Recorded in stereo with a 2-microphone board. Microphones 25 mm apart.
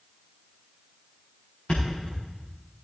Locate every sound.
1.7 s a thud: 40° left (ahead or behind), 5 m